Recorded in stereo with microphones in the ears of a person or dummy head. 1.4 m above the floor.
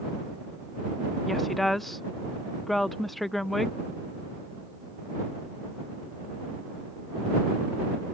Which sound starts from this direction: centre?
A woman speaking, at 1.2 s.